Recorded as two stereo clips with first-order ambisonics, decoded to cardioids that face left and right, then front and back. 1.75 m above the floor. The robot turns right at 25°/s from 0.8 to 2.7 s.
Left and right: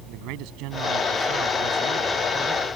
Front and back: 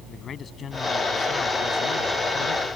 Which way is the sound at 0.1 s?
65° right.